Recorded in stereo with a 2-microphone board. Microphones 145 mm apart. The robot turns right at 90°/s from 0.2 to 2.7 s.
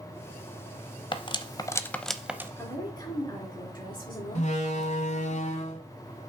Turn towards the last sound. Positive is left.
turn(degrees=55)  # may be behind; listen again after turning